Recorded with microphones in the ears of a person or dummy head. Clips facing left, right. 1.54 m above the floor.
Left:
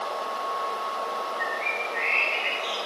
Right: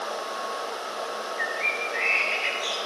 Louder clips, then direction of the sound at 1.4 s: Even; 60° right (ahead or behind).